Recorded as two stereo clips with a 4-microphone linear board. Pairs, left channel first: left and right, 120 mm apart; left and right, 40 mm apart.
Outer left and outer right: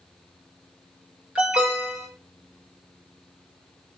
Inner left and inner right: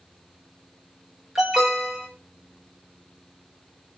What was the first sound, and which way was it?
An alarm, 10° right (ahead or behind).